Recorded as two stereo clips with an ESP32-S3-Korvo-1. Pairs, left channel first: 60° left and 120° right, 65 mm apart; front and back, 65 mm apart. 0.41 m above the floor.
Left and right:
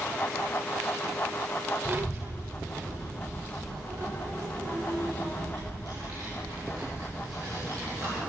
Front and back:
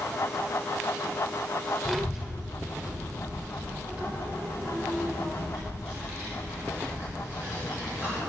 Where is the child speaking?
90° right, 1.2 m; by 8.2 s 125° right, 5 m.